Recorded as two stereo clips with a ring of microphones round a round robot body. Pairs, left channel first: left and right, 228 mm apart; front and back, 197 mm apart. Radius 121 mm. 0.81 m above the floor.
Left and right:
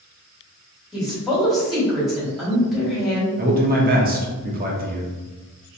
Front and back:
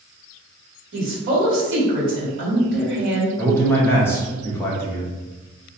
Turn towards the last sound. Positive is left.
turn(degrees=-75)